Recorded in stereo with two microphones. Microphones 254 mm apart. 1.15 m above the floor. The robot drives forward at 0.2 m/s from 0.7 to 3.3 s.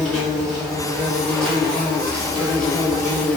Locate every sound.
0.0 s an insect: 5° left (ahead or behind), 1.0 m